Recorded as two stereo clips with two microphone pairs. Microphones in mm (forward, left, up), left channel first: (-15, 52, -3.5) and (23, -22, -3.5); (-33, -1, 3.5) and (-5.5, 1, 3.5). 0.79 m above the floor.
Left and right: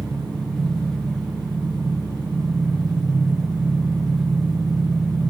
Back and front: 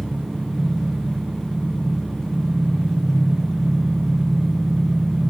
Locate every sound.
0.0 s an engine running: 105° right, 2.5 m